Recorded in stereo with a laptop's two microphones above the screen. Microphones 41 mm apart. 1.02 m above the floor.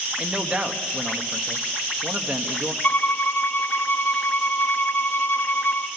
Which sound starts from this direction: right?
A man speaking, at 0.2 s.